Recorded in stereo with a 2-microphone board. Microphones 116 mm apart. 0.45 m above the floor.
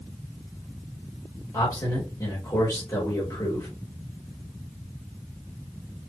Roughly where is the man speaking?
Left.